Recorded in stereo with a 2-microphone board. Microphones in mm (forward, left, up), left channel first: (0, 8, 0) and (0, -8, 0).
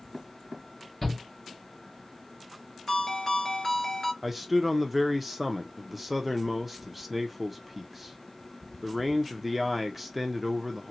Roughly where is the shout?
Centre.